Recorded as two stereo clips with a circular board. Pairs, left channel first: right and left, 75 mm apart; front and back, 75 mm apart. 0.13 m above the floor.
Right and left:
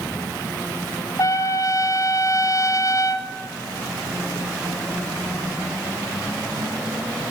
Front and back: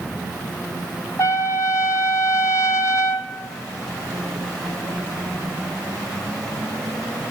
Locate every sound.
1.2 s a trumpet: 45° right, 0.8 m